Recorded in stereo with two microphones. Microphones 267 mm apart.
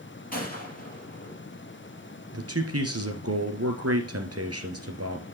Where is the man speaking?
65° right (ahead or behind), 2.5 m.